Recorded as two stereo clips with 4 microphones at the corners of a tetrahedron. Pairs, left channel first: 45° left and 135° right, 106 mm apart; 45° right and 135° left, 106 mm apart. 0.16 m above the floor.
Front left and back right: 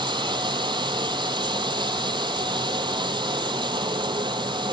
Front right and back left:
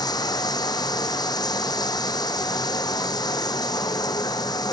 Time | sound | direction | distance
0.0 | running water | 95° right | 0.7 m